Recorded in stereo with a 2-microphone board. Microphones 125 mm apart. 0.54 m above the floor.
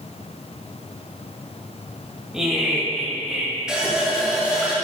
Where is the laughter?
5° right (ahead or behind), 2 m; by 3.5 s centre (ahead or behind), 3 m.